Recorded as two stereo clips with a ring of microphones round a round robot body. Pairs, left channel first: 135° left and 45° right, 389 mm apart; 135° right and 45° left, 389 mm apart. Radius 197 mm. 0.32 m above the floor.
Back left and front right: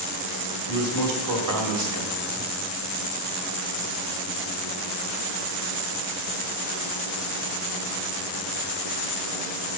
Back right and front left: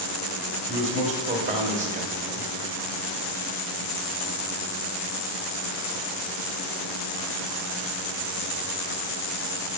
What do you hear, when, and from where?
0.7 s a man speaking: 20° right, 1.7 m